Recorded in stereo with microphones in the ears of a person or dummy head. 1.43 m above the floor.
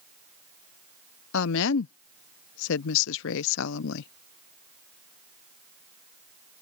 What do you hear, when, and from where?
1.3 s a woman speaking: 65° left (ahead or behind)